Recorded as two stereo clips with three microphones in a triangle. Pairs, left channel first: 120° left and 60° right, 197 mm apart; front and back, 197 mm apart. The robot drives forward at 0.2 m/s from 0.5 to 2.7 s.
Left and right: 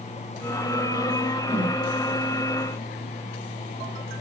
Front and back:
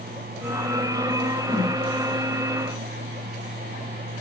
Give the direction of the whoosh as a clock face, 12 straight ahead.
9 o'clock.